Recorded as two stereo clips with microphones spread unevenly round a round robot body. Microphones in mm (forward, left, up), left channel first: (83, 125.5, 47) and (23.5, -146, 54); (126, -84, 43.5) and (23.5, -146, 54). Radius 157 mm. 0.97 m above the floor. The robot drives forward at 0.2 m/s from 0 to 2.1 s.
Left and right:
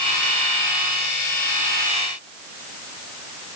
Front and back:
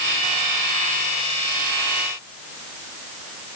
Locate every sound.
Only background noise.